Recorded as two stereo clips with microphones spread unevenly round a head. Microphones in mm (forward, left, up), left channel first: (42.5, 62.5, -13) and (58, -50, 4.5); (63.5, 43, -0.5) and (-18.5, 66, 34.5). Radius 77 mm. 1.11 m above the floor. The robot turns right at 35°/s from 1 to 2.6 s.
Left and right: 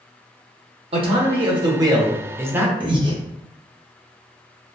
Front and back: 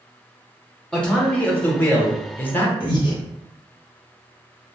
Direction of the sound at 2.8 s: 35° right.